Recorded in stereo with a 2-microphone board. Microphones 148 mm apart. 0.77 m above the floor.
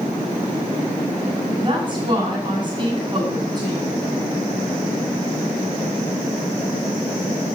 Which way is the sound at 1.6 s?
30° right (ahead or behind).